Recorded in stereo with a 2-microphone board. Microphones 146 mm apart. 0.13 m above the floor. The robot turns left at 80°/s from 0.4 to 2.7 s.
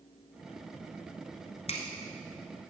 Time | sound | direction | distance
1.7 | a finger snap | 45° left (ahead or behind) | 1.3 m